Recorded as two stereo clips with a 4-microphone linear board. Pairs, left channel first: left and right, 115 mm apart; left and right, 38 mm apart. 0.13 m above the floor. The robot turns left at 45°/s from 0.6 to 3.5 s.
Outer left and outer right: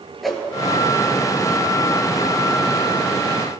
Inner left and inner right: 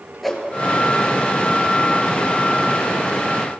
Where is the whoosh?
Centre (ahead or behind), 1.3 m.